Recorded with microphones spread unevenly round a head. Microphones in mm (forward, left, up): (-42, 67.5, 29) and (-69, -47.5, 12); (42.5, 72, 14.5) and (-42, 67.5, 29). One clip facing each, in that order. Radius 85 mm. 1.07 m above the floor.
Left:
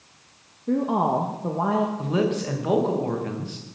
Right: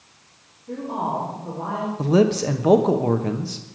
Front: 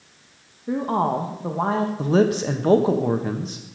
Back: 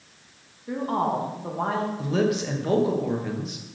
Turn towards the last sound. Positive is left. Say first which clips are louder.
# right 6 dB, front 6 dB
turn(degrees=-50)